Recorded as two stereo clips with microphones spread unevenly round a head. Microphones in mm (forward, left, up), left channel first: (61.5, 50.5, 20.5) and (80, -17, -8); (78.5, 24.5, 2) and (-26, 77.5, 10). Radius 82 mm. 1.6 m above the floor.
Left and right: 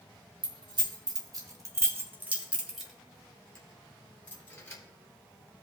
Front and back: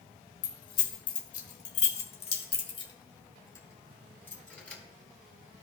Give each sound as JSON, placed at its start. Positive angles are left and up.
{"t": 0.4, "sound": "keys jangling", "azimuth_deg": -55, "distance_m": 1.8}